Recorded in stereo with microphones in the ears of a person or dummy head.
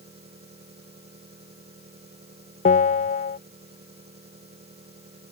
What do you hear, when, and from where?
0.0 s an engine running: 25° right (ahead or behind)
2.6 s a bell: 35° left (ahead or behind)